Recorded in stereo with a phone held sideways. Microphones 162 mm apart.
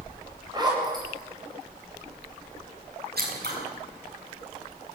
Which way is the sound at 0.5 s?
25° right (ahead or behind).